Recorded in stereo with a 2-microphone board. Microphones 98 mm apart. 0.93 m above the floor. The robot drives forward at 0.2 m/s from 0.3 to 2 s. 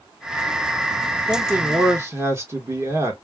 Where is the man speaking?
25° right (ahead or behind), 1.0 m.